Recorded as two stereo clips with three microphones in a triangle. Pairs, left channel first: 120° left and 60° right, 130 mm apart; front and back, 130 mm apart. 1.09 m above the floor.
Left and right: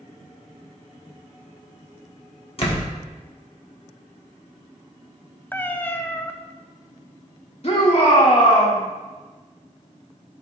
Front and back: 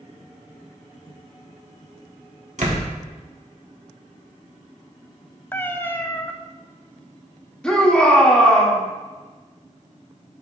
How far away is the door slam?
About 1.6 m.